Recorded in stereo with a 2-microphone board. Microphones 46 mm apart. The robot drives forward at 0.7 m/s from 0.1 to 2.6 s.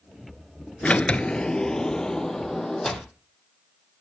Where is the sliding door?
30° left (ahead or behind), 0.5 m; by 3.1 s 10° left (ahead or behind), 1.5 m.